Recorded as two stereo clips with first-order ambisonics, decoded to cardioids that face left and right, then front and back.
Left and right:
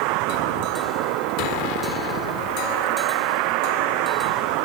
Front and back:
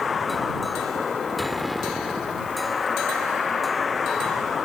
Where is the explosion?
80° left.